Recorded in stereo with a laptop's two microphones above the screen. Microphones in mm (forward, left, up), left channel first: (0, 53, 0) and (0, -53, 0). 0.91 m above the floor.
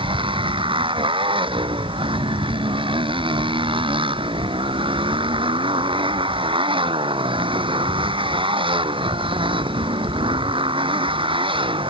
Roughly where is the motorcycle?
Right.